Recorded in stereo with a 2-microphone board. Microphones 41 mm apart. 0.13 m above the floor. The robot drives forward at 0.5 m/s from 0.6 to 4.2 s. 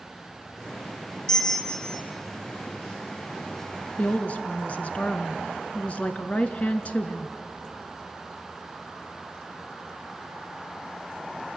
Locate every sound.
1.3 s a bell: 15° left (ahead or behind), 0.9 m; by 2.0 s 10° left (ahead or behind), 1.2 m
4.0 s a woman speaking: 35° left (ahead or behind), 1.3 m